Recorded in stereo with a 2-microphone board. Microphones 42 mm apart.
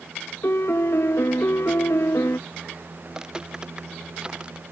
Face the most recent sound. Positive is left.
turn(degrees=-20)  # may be behind; listen again after turning